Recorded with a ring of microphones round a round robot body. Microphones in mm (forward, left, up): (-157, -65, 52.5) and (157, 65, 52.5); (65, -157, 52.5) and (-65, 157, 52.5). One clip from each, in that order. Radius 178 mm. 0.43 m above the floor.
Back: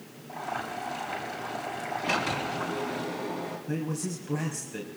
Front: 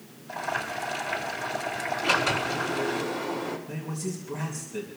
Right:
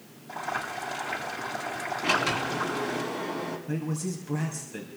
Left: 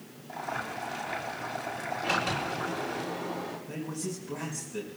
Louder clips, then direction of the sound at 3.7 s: Back 2 dB, right 3 dB; 105° right.